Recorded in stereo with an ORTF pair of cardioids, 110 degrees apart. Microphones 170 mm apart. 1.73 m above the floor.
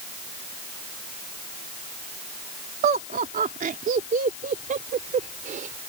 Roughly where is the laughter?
Right.